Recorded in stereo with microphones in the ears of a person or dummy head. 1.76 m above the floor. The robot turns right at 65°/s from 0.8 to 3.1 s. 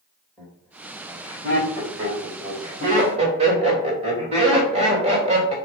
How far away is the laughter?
About 3.5 m.